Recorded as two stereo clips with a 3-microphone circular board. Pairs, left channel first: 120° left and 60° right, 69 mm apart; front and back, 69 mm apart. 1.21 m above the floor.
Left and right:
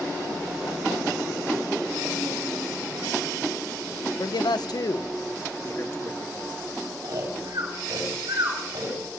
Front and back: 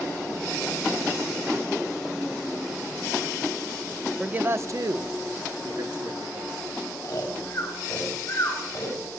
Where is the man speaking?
105° left, 0.7 m; by 6.5 s straight behind, 2.5 m.